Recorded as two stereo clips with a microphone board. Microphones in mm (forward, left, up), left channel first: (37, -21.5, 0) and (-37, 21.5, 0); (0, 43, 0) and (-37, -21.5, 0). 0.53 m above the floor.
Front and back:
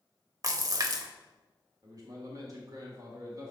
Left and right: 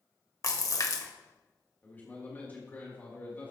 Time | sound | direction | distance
0.4 | a splash | 105° left | 0.7 m
1.8 | a man speaking | 120° left | 1.7 m